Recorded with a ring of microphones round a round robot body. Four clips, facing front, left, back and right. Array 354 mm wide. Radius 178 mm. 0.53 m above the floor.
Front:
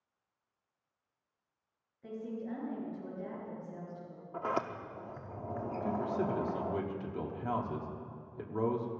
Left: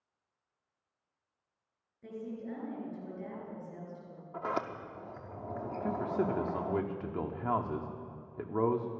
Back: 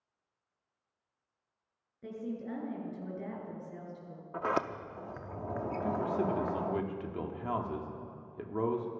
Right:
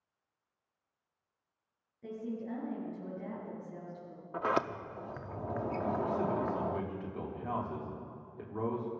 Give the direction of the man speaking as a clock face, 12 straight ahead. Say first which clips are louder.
Left 2 dB, back 2 dB; 9 o'clock.